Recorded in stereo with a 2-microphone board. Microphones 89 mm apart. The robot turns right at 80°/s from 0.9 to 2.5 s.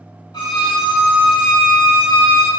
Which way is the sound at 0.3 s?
60° left.